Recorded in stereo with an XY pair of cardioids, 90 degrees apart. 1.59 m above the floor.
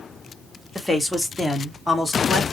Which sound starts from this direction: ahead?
A man speaking, at 0.8 s.